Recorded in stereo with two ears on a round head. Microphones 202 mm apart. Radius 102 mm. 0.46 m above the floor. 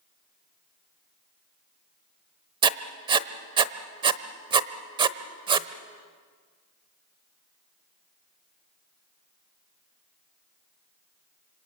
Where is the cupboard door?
I don't hear a cupboard door.